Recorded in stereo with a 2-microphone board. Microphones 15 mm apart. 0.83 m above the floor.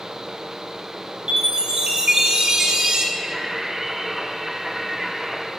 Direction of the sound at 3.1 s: 25° right (ahead or behind).